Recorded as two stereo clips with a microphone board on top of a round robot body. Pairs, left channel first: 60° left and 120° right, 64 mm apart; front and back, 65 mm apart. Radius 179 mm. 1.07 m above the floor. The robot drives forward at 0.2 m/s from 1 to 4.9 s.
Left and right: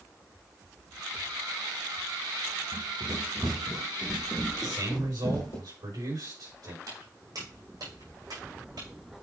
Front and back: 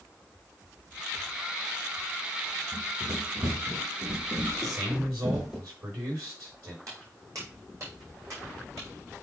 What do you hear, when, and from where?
2.7 s running footsteps: 165° right, 1.6 m; by 5.6 s 95° left, 1.7 m
4.6 s a man speaking: 140° right, 5 m; by 6.8 s 145° right, 5 m
6.9 s footsteps: 145° right, 3.5 m; by 8.9 s 135° right, 5 m